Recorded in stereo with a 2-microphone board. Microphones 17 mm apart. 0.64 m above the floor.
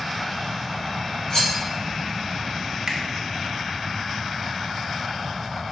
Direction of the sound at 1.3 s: 35° left (ahead or behind).